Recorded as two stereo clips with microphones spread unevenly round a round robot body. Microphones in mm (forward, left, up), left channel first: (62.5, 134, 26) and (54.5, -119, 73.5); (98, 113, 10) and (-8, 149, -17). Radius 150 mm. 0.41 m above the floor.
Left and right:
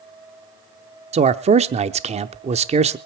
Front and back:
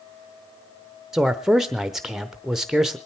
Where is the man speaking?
150° right, 0.8 m.